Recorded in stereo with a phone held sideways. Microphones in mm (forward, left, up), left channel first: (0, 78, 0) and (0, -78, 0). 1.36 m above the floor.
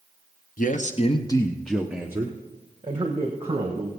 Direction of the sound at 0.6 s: 60° left (ahead or behind).